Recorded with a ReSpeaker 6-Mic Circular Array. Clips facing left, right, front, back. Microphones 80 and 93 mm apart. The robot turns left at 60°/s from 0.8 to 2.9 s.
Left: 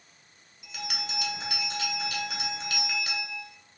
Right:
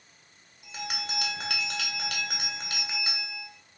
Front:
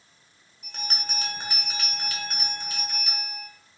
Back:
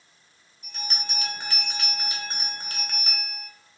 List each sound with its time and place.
0.6 s a bell: 30° right, 1.2 m; by 3.5 s 155° right, 1.2 m